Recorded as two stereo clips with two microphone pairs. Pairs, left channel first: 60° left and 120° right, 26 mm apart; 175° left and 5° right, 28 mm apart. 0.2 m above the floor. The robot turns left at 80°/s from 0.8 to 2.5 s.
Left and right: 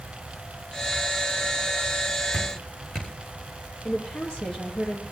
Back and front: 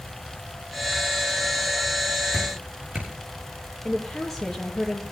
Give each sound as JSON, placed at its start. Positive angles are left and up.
{"t": 2.3, "sound": "dripping", "azimuth_deg": 55, "distance_m": 6.5}
{"t": 3.9, "sound": "a woman speaking", "azimuth_deg": 95, "distance_m": 4.5}